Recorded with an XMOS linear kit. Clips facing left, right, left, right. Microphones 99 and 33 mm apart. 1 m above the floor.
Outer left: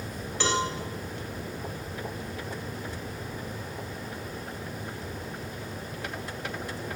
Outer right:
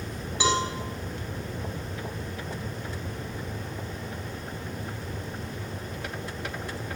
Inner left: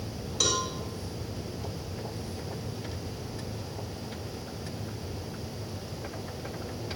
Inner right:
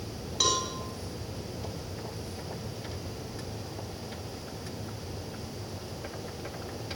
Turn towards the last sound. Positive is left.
turn(degrees=-15)  # may be behind; listen again after turning